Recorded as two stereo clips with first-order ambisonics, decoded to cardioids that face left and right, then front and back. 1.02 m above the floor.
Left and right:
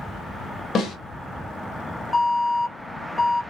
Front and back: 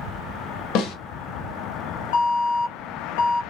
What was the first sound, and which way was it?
A snare drum, 30° left.